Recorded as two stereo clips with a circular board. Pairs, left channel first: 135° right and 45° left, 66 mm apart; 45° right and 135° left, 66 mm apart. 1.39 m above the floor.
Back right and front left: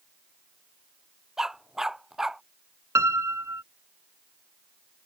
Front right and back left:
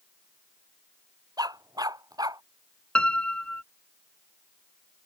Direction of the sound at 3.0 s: 25° left.